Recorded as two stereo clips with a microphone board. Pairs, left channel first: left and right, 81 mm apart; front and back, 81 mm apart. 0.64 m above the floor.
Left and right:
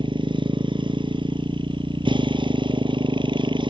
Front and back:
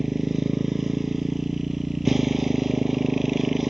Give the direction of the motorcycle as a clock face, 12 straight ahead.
3 o'clock.